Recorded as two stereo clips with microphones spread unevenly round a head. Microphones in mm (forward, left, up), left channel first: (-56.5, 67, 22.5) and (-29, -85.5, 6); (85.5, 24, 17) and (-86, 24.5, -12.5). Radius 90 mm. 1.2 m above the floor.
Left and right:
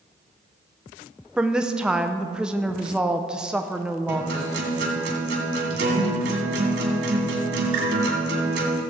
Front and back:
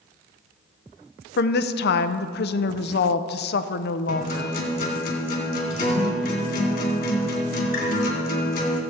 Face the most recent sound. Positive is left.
turn(degrees=-50)